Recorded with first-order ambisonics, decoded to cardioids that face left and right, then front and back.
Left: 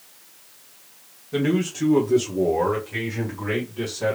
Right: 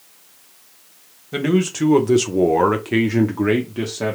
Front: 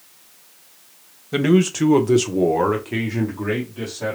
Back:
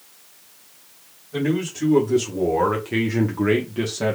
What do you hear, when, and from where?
1.3 s a man speaking: 25° right, 1.0 m; by 4.2 s 130° right, 1.1 m